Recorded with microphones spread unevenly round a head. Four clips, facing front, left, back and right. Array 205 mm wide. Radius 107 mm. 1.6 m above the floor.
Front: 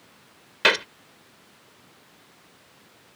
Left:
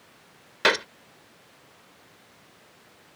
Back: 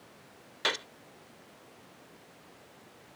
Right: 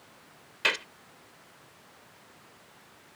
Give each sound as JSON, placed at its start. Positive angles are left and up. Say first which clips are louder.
{"t": 0.6, "sound": "a gunshot", "louder": "left 9 dB, front 11 dB", "azimuth_deg": 35}